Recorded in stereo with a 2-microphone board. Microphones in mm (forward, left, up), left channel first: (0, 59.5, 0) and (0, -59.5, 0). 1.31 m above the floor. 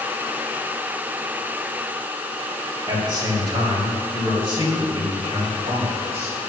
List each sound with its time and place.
2.9 s a man speaking: 40° right (ahead or behind), 2.5 m; by 6.4 s 65° right (ahead or behind), 4.5 m